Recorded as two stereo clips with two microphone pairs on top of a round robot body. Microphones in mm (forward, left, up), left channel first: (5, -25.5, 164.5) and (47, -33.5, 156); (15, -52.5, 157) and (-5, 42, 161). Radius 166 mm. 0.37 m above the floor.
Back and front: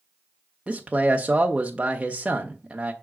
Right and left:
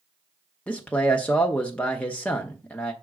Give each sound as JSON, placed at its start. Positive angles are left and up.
{"t": 0.7, "sound": "a man speaking", "azimuth_deg": -15, "distance_m": 1.1}